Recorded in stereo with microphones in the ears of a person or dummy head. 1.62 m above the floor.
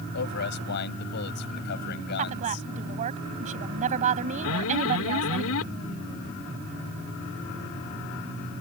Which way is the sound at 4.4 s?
85° left.